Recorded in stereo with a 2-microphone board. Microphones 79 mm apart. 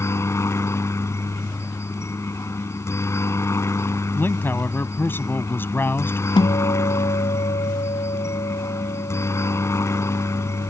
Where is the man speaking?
30° left (ahead or behind).